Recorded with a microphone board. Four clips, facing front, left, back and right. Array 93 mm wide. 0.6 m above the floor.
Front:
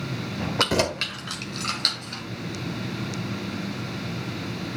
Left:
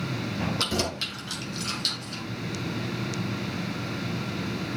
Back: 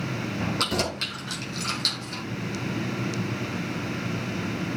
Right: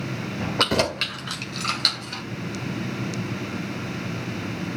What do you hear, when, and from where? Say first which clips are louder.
0.6 s keys jangling: right 6 dB, front 4 dB; 50° right, 1.5 m; by 2.2 s 65° right, 2.5 m